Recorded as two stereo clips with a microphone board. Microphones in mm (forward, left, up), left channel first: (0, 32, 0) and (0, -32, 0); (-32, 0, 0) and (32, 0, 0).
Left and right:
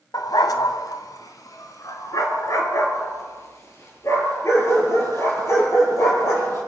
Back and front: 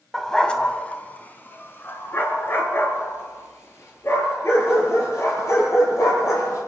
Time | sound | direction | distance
0.1 | a dog barking | 95° left | 1.7 m